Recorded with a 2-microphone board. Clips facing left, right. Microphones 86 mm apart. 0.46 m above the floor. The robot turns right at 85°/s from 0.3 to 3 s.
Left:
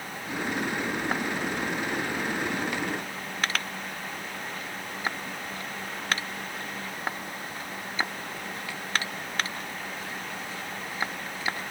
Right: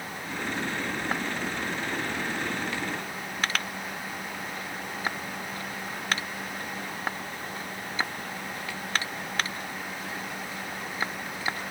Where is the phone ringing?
I don't hear a phone ringing.